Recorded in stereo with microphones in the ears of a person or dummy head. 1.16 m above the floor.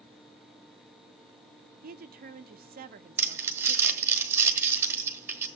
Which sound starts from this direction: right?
A woman speaking, at 1.8 s.